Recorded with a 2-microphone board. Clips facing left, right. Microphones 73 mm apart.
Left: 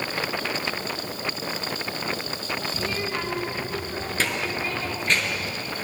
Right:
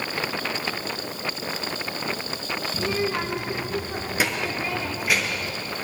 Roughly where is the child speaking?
Right.